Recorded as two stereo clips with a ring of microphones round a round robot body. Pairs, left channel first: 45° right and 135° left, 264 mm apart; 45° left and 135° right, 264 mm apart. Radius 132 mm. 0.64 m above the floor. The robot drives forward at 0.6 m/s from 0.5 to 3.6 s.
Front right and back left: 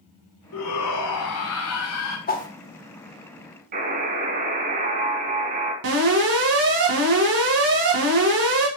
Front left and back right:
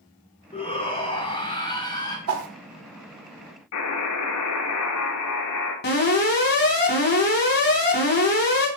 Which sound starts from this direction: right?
A whoosh, at 2.3 s.